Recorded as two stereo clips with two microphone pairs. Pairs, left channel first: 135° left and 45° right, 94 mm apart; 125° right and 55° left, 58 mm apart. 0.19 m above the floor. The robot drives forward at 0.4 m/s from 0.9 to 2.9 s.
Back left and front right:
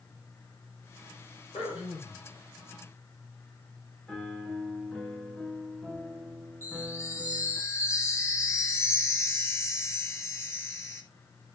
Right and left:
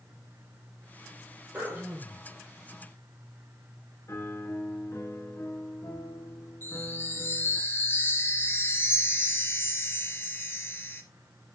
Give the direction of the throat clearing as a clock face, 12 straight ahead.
8 o'clock.